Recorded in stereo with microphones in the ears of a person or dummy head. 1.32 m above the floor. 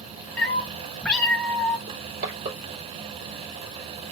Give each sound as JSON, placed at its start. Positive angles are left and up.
{"t": 0.4, "sound": "a cat meowing", "side_deg": 5, "distance_m": 1.2}
{"t": 1.9, "sound": "crushing", "side_deg": -50, "distance_m": 2.5}